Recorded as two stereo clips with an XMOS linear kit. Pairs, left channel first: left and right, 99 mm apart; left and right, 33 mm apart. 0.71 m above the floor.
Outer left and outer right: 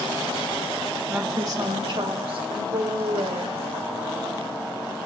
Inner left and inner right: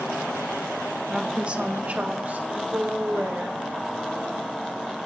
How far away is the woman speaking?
About 0.9 m.